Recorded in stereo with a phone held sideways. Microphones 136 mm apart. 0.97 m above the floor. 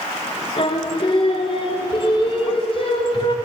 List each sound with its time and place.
0.6 s singing: 40° left (ahead or behind), 1.0 m